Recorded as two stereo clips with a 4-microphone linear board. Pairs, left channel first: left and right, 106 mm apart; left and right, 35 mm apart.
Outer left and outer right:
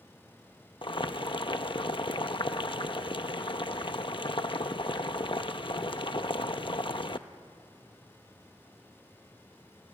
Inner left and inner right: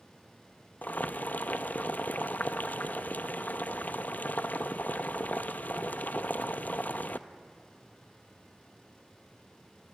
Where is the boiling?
55° left (ahead or behind), 0.7 m.